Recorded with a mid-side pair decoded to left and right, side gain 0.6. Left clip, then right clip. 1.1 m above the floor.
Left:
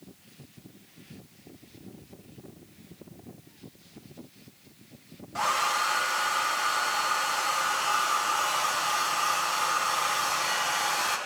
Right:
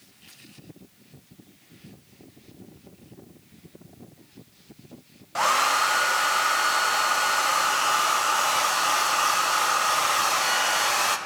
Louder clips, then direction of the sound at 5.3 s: Right 5 dB; 40° right.